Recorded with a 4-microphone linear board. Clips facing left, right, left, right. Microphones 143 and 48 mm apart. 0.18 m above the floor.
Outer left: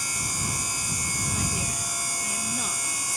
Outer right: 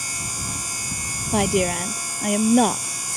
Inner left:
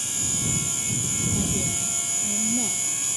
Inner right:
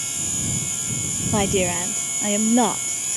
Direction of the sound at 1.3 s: 75° right (ahead or behind).